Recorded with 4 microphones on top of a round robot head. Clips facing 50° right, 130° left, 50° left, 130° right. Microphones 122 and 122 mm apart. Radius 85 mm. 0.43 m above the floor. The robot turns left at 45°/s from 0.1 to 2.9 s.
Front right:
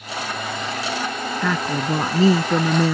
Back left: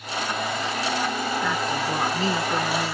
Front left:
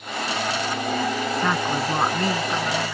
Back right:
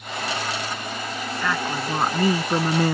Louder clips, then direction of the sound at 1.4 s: Front right 3 dB, even; 20° right.